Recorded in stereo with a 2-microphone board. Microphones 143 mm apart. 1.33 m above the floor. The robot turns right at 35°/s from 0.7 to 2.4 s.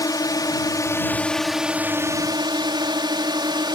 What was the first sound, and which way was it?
A drone, 155° left.